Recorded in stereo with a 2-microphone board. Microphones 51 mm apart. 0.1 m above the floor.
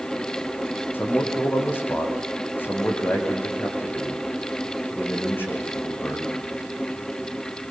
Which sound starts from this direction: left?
A man speaking, at 0.9 s.